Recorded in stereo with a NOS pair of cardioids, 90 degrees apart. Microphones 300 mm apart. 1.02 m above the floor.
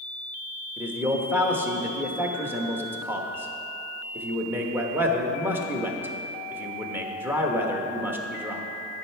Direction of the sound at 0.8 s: 5° right.